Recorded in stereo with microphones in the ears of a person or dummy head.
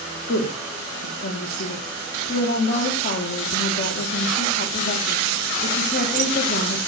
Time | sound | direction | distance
0.3 | a woman speaking | 55° left (ahead or behind) | 2.5 m